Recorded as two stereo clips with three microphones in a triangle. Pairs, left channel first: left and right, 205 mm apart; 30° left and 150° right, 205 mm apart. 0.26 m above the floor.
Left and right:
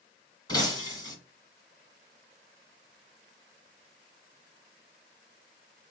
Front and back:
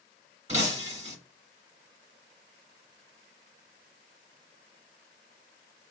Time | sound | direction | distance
0.5 | breaking glass | 160° left | 1.3 m